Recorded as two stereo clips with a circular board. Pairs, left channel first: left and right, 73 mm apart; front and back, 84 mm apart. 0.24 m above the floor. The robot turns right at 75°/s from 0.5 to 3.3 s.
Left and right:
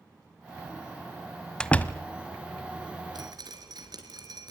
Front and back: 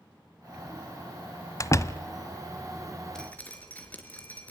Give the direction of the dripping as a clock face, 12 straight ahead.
3 o'clock.